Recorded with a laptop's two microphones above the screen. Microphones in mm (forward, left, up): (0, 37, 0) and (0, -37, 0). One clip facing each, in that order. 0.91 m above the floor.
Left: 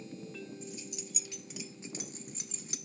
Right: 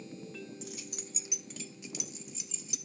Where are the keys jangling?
70° right (ahead or behind), 1.0 m; by 2.8 s 50° left (ahead or behind), 1.8 m.